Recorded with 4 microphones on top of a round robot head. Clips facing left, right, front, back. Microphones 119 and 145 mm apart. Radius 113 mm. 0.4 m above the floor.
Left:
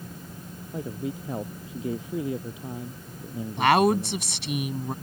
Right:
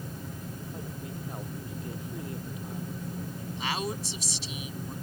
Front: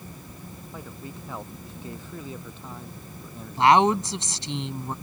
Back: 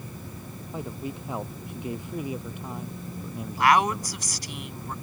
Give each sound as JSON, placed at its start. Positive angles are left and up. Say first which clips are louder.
{"t": 0.7, "sound": "a man speaking", "louder": "left 7 dB, back 7 dB", "azimuth_deg": 110}
{"t": 3.6, "sound": "a woman speaking", "louder": "left 14 dB, front 4 dB", "azimuth_deg": 65}